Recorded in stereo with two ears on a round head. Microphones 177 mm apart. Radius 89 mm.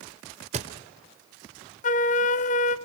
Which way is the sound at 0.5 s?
35° right (ahead or behind).